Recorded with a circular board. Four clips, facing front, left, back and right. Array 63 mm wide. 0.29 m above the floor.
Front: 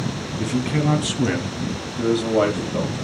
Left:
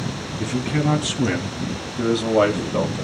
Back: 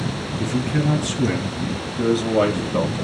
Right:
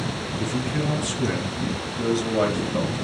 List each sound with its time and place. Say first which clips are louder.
0.4 s a man speaking: left 4 dB, even; 35° left, 3 m; by 3.0 s 125° left, 1.7 m